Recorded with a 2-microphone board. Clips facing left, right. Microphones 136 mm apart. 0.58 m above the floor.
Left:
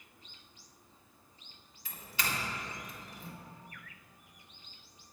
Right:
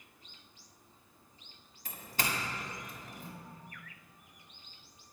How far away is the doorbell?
About 1.5 m.